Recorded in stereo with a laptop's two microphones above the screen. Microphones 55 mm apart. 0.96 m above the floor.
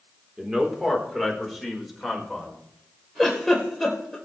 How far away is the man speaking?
About 3.5 m.